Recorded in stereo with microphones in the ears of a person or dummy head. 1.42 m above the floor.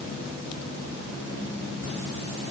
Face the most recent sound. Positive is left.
No sound to turn to.